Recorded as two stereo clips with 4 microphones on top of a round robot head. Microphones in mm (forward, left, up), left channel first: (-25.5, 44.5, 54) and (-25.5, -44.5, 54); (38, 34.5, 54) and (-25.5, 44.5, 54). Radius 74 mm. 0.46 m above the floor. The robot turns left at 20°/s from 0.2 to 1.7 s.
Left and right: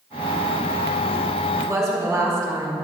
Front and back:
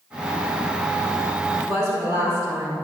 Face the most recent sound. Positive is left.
turn(degrees=-145)